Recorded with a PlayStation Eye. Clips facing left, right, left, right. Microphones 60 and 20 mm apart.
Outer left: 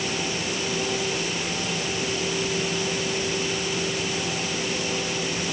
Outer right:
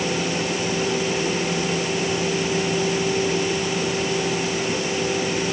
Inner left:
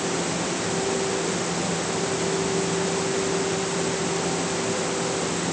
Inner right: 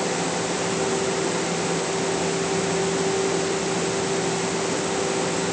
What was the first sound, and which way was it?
Only background noise.